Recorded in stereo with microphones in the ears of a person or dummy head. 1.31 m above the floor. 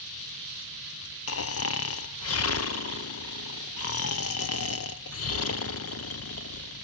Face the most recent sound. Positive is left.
turn(degrees=60)  # may be behind; listen again after turning